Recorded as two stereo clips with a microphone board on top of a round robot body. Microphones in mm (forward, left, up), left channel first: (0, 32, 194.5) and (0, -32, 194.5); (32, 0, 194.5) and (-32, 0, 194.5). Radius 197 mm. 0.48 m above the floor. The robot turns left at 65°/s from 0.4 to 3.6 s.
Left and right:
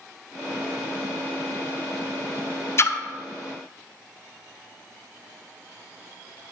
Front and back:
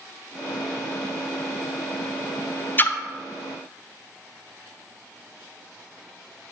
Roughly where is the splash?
Ahead left.